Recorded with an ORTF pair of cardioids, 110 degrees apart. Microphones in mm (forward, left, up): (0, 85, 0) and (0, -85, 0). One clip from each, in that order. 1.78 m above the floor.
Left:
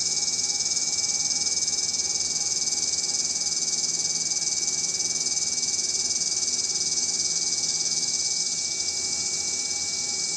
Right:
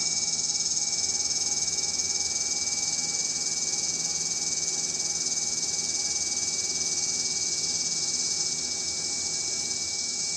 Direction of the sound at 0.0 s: 20° left.